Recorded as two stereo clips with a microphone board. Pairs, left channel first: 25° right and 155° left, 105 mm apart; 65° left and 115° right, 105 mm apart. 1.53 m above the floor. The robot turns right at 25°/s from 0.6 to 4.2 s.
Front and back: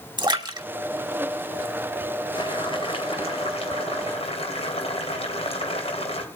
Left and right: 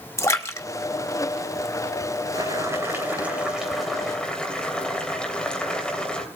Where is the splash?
125° left, 1.3 m.